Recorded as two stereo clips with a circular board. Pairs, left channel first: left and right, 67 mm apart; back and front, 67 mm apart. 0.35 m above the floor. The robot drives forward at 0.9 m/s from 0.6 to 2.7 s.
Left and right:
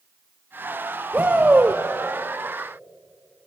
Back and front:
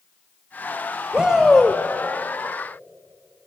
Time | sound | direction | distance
1.1 | a shout | 60° right | 1.2 m